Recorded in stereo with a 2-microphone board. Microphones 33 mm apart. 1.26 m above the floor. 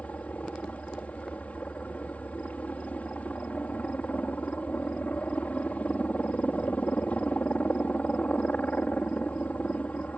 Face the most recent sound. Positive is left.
turn(degrees=50)  # may be behind; listen again after turning